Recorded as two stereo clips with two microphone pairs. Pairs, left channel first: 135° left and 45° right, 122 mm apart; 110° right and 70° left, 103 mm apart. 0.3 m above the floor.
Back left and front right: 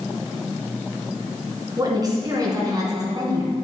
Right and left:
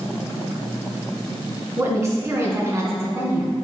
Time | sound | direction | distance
1.8 | a woman speaking | 10° left | 2 m